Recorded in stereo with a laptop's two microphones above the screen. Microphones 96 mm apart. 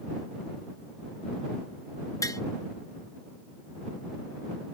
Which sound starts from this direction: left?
Tapping, at 2.2 s.